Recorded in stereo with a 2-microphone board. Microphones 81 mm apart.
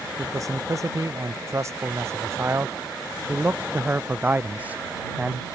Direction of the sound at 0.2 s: 45° right (ahead or behind).